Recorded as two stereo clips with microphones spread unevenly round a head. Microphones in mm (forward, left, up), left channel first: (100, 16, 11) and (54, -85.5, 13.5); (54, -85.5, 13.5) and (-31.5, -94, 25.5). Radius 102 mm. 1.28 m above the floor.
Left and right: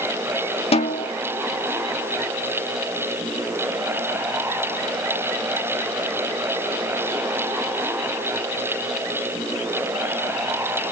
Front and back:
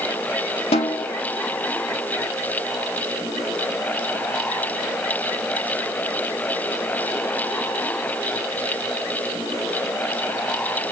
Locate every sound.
0.7 s a snare drum: 40° left, 1.3 m